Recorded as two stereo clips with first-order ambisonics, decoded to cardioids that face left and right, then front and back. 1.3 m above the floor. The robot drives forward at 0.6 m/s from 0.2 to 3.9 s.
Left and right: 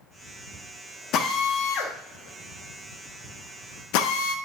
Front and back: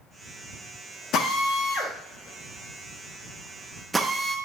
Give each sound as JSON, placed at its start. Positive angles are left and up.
{"t": 1.1, "sound": "a drill", "azimuth_deg": 45, "distance_m": 2.0}